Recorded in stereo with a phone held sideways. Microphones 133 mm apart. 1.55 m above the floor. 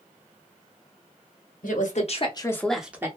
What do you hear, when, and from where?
1.6 s a woman speaking: 70° left (ahead or behind), 0.9 m; by 3.1 s 15° right (ahead or behind), 0.8 m